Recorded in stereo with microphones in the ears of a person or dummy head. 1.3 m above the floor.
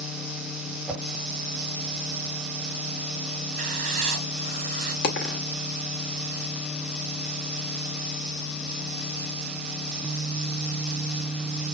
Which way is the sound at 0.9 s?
Centre (ahead or behind).